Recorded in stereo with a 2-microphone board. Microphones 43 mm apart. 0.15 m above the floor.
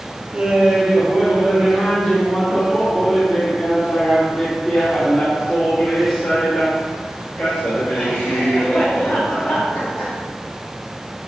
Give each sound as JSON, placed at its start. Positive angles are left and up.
{"t": 0.3, "sound": "laughter", "side_deg": -30, "distance_m": 2.5}